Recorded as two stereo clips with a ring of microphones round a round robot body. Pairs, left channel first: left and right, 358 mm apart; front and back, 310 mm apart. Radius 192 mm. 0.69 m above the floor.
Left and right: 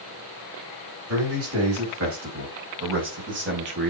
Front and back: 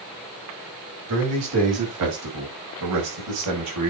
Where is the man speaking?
135° right, 5.5 m; by 3.9 s 150° right, 4.5 m.